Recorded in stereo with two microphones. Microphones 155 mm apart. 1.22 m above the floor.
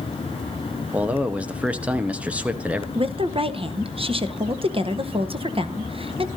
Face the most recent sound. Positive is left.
turn(degrees=-35)  # may be behind; listen again after turning